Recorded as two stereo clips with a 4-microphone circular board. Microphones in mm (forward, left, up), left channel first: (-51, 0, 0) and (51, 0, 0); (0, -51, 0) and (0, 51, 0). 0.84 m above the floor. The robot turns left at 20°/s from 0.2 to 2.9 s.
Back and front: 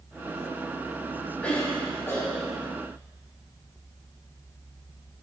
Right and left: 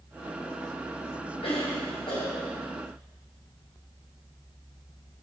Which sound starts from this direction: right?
A cough, at 1.4 s.